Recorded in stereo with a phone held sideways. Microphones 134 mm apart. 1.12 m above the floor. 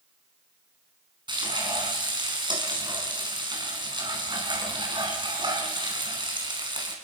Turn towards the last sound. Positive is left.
turn(degrees=-35)  # may be behind; listen again after turning